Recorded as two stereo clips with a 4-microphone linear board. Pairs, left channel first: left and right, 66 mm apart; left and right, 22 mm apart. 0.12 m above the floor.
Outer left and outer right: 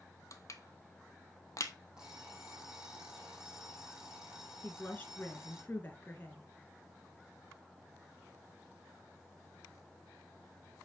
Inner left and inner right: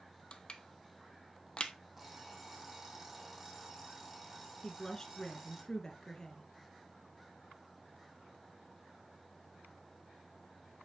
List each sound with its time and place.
0.3 s crushing: 50° left (ahead or behind), 1.0 m
2.0 s an alarm clock: 10° right (ahead or behind), 3.5 m
4.6 s a woman speaking: 30° left (ahead or behind), 1.7 m